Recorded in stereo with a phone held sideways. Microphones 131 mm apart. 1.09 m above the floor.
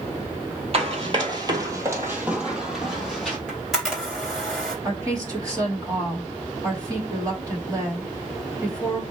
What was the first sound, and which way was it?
Running footsteps, 45° right (ahead or behind).